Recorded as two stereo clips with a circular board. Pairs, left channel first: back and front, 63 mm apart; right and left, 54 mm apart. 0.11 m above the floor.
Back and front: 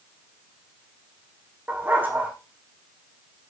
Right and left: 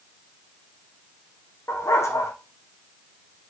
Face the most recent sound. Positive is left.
turn(degrees=-60)